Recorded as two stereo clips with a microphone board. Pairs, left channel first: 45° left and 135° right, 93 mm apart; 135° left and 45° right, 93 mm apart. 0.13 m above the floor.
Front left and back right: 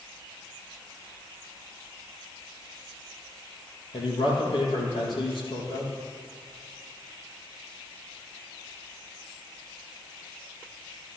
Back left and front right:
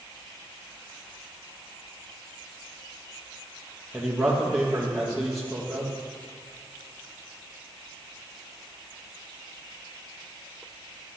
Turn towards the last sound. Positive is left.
turn(degrees=45)